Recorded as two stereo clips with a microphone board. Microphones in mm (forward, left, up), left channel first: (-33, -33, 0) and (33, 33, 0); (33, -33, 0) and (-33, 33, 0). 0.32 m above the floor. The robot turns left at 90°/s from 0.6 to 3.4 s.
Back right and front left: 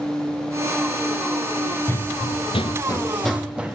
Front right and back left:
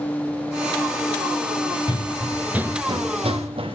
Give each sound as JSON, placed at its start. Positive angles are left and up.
{"t": 1.9, "sound": "running footsteps", "azimuth_deg": -70, "distance_m": 0.5}